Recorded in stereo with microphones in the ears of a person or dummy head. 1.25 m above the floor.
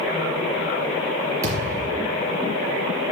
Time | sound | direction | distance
1.4 | a thud | 20° right (ahead or behind) | 3.5 m